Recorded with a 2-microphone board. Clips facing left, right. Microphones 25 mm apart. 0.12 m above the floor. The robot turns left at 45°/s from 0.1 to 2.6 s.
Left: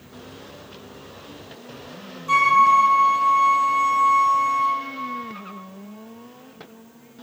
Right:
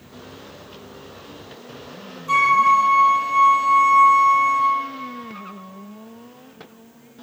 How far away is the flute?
About 2 m.